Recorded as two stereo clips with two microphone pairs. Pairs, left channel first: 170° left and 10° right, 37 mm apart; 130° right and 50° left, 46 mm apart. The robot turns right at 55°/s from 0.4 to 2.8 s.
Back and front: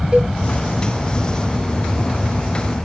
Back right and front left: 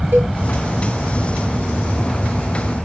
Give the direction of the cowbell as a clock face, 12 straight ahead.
10 o'clock.